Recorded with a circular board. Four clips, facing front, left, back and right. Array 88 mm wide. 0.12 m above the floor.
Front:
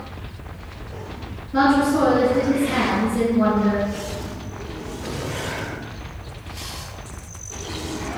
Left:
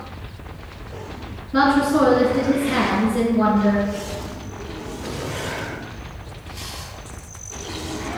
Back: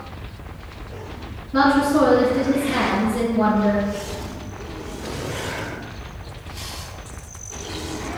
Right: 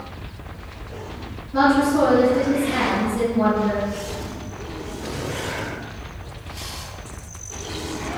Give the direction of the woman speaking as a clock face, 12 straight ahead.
9 o'clock.